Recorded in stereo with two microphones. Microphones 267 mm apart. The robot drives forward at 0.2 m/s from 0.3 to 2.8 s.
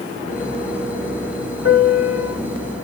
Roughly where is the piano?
Left.